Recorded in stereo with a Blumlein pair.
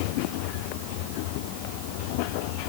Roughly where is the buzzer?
I don't hear a buzzer.